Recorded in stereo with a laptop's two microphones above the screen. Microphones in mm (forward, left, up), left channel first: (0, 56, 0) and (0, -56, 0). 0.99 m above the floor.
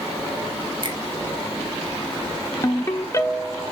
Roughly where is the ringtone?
Left.